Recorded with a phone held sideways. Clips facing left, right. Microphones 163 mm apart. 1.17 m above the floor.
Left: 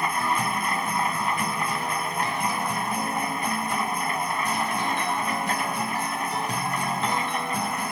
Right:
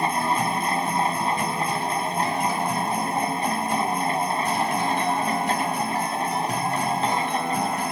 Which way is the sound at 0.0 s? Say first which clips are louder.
Right 3 dB; 30° right (ahead or behind).